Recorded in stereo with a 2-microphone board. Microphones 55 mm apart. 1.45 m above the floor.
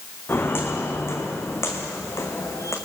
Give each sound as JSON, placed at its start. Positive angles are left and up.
{"t": 0.3, "sound": "footsteps", "side_deg": 45, "distance_m": 4.0}